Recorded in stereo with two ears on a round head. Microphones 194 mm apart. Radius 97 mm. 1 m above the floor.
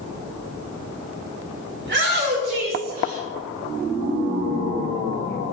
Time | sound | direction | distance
1.8 | a shout | 55° right (ahead or behind) | 2.5 m